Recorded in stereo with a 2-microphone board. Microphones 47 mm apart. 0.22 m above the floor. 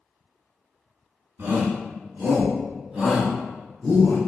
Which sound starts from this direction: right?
A shout, at 1.4 s.